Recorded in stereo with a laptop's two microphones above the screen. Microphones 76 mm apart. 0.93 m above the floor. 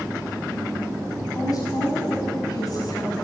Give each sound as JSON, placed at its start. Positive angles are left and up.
{"t": 1.4, "sound": "a woman speaking", "side_deg": 50, "distance_m": 5.5}